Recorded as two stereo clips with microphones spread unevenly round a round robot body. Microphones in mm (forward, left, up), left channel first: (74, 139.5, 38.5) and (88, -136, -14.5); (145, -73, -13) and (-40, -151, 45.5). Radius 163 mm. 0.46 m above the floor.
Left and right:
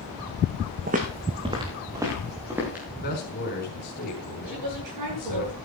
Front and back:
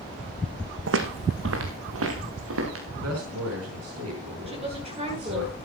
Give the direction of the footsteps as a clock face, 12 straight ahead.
5 o'clock.